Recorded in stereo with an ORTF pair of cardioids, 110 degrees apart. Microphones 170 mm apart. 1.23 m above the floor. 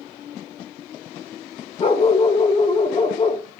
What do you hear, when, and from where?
1.8 s a dog barking: 40° left, 2 m